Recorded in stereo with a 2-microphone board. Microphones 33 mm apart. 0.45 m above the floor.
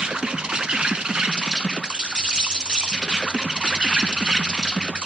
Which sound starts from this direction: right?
An insect, at 0.0 s.